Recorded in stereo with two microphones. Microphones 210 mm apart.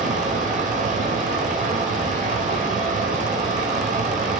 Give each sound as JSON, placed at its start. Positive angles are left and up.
{"t": 0.0, "sound": "running water", "side_deg": -40, "distance_m": 2.5}